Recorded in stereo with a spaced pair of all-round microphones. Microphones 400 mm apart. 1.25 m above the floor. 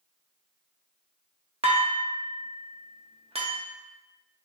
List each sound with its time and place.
1.6 s dishes clattering: 15° right (ahead or behind), 0.8 m